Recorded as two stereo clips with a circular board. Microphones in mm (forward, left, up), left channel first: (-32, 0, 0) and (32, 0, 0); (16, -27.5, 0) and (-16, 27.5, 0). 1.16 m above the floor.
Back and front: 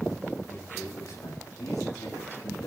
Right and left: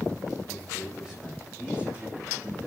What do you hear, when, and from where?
0.5 s a man speaking: 140° right, 4 m; by 2.7 s 170° right, 2.5 m